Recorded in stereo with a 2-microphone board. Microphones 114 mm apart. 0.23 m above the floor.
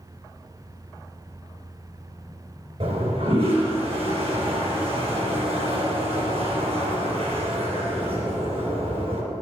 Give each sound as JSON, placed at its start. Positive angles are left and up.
{"t": 2.8, "sound": "a toilet flushing", "side_deg": -65, "distance_m": 3.5}